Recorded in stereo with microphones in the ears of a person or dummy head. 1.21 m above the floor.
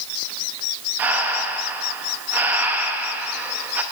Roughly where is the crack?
I don't hear a crack.